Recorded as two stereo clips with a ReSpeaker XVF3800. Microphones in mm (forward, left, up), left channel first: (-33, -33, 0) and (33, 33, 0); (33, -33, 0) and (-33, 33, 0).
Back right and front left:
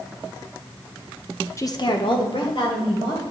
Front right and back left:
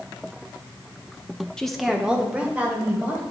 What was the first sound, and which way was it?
A woman speaking, 120° right.